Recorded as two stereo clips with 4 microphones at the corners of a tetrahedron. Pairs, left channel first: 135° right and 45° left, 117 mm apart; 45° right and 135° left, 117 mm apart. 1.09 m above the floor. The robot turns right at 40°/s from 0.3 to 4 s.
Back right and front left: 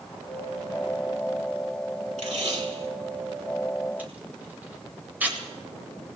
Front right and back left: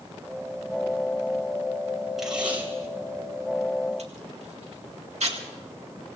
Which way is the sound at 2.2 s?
45° left.